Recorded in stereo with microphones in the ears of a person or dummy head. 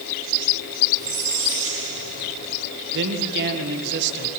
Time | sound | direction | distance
1.0 | a squeak | 45° right (ahead or behind) | 7 m
2.9 | a man speaking | 65° right (ahead or behind) | 1.7 m